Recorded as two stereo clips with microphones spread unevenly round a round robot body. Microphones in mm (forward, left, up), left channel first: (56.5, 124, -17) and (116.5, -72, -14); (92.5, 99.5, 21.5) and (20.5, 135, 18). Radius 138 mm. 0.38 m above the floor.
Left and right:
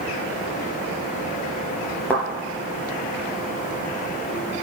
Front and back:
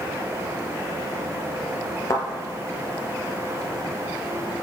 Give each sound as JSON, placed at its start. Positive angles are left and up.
{"t": 2.1, "sound": "a thud", "azimuth_deg": 25, "distance_m": 4.0}